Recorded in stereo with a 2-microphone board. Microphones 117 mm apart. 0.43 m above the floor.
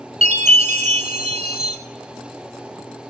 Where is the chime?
70° right (ahead or behind), 0.6 m.